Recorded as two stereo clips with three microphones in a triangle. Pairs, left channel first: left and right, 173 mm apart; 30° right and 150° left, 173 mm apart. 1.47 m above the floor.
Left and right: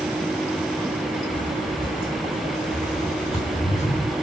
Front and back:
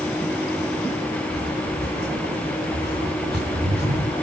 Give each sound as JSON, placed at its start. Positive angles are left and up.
{"t": 1.3, "sound": "footsteps", "azimuth_deg": 150, "distance_m": 6.5}